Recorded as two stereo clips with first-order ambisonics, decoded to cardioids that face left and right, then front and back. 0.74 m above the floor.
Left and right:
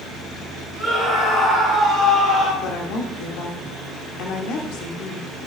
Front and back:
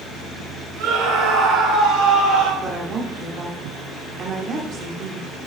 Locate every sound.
0.8 s a scream: 155° left, 3 m; by 2.5 s 135° left, 3.5 m
2.6 s a woman speaking: 120° left, 1.5 m